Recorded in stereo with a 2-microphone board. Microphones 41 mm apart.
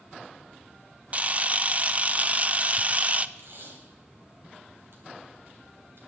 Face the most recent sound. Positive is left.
turn(degrees=-65)  # may be behind; listen again after turning